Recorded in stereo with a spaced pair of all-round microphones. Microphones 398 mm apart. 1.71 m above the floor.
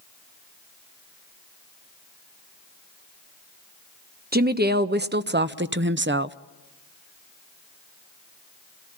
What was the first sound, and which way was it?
A woman speaking, 25° right (ahead or behind).